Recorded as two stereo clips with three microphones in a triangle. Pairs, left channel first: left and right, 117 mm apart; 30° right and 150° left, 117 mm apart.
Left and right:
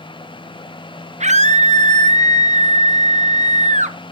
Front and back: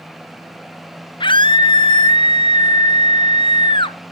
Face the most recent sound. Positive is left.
turn(degrees=-80)